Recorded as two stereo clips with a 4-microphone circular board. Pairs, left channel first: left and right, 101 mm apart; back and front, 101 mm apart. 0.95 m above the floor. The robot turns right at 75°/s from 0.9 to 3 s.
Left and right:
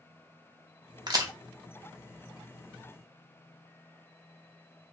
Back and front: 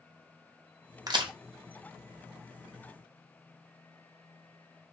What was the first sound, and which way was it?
A crack, 50° right.